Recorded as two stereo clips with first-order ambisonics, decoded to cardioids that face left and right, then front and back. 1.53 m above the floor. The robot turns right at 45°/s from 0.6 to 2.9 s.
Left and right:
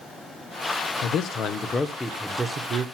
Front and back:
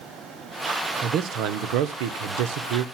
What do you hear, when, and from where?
1.0 s a man speaking: 130° left, 0.9 m; by 2.9 s 150° right, 0.9 m